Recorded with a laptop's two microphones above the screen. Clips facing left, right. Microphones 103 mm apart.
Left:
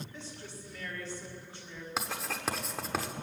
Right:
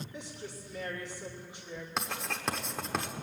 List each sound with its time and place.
0.1 s a woman speaking: 15° right (ahead or behind), 1.7 m
2.0 s writing: 5° left (ahead or behind), 0.8 m